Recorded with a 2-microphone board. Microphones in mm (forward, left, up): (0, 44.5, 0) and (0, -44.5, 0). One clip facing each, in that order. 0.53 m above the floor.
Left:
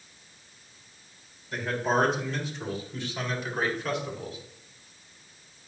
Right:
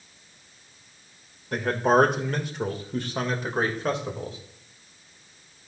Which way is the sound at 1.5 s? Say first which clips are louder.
Right 6 dB; 60° right (ahead or behind).